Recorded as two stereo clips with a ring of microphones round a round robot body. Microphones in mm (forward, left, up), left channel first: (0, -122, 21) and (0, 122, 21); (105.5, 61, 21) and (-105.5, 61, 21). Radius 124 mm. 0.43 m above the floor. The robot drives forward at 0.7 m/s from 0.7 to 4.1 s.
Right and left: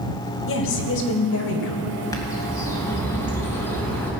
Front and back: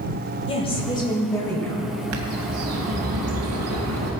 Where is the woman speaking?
65° right, 2.5 m; by 1.9 s 90° right, 2 m.